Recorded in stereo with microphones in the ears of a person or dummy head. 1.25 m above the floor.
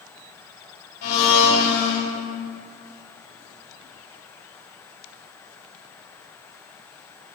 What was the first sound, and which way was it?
A blender, 55° left (ahead or behind).